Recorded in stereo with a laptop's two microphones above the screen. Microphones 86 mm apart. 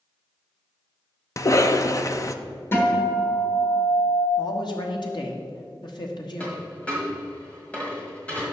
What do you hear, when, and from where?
1.4 s a cough: 40° left (ahead or behind), 0.6 m
2.7 s a guitar: 30° left (ahead or behind), 1.6 m
4.4 s a man speaking: 60° left (ahead or behind), 1.3 m
6.4 s a dropped coin: 15° left (ahead or behind), 1.8 m